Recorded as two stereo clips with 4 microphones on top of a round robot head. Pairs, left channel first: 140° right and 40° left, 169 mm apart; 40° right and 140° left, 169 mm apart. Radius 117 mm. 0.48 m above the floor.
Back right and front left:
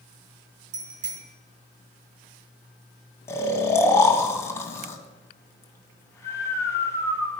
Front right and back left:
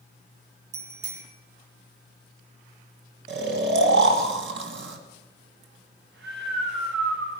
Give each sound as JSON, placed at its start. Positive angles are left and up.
{"t": 0.7, "sound": "a bicycle bell", "azimuth_deg": 85, "distance_m": 4.5}
{"t": 3.3, "sound": "snoring", "azimuth_deg": 150, "distance_m": 2.5}